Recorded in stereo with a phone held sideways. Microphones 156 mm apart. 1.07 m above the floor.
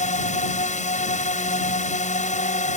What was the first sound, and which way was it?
A drone, 50° left (ahead or behind).